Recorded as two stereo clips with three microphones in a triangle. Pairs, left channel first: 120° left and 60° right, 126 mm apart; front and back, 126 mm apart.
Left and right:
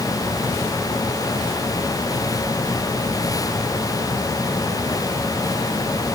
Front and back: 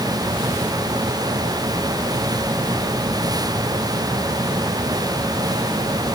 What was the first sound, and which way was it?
Only background noise.